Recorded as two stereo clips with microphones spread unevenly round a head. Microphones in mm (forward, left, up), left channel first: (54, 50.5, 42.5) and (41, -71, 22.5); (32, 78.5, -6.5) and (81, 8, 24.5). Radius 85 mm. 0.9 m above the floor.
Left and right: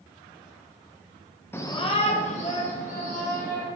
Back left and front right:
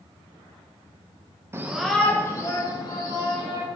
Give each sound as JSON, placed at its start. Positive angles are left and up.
{"t": 1.5, "sound": "a shout", "azimuth_deg": 15, "distance_m": 0.7}